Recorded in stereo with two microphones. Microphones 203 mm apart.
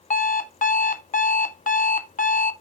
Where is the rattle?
I don't hear a rattle.